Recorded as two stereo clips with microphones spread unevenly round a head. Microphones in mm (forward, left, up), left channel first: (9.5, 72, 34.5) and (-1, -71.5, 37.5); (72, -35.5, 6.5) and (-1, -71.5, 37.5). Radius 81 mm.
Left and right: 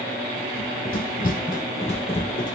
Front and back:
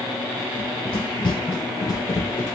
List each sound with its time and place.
0.6 s running footsteps: 80° left, 1.5 m; by 2.6 s 125° left, 1.0 m